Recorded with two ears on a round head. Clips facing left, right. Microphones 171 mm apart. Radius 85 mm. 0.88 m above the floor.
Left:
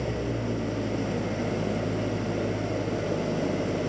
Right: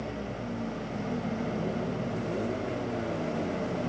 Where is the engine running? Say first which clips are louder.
Left 6 dB; 60° left (ahead or behind).